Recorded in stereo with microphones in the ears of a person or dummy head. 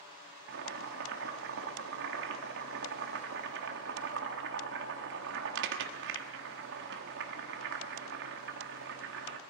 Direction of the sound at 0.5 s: 65° right (ahead or behind).